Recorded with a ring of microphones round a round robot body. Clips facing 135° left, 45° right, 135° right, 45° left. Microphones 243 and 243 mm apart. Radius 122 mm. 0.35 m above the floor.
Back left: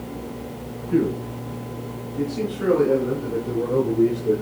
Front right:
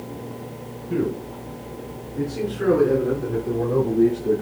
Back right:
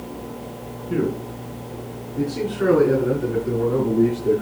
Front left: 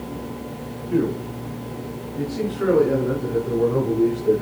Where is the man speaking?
85° right, 3 m; by 4.4 s 105° right, 7.5 m.